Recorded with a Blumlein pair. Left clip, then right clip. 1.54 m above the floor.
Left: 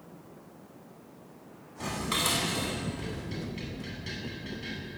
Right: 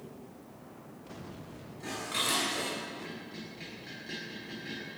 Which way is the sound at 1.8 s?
30° left.